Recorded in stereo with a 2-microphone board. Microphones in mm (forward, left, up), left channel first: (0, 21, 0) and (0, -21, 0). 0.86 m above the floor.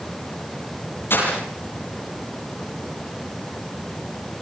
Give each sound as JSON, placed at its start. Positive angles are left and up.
{"t": 1.1, "sound": "breaking glass", "side_deg": 65, "distance_m": 10.0}